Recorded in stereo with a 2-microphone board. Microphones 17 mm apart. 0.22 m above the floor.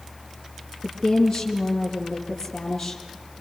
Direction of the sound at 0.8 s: 50° left (ahead or behind).